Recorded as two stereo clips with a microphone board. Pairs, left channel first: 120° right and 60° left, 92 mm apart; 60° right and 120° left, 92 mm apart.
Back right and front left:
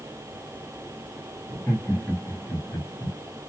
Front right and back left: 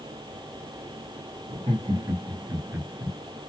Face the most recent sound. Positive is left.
turn(degrees=-160)